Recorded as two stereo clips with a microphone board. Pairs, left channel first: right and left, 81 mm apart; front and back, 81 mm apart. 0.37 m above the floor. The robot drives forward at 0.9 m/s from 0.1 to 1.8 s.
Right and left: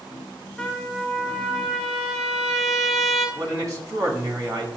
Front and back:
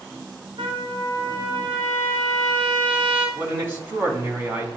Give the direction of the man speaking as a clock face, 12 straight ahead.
7 o'clock.